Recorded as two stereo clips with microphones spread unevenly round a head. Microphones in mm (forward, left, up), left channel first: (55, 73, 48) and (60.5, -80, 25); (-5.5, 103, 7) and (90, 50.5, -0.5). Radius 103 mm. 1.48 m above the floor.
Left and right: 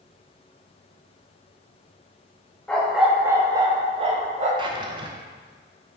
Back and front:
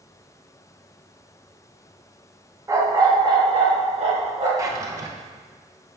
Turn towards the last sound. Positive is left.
turn(degrees=-50)